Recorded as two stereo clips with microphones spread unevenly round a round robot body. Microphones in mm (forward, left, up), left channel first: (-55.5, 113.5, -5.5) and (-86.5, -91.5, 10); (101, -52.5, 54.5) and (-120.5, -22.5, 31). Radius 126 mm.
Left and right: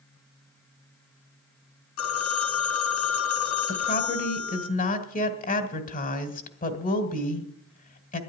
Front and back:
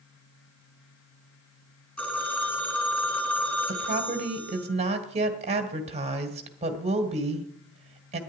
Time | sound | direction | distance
2.0 | a phone ringing | 80° left | 2 m
3.7 | a woman speaking | 120° left | 2 m